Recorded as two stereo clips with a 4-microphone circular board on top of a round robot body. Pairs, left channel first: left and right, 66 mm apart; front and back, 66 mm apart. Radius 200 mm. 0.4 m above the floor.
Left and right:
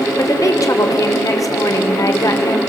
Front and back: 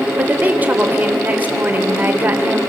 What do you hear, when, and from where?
0.2 s a woman speaking: 120° left, 2.5 m